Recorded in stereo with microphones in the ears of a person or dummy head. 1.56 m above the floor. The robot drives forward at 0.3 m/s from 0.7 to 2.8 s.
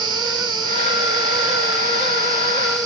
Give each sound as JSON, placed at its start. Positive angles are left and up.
{"t": 0.0, "sound": "an insect", "side_deg": -20, "distance_m": 1.9}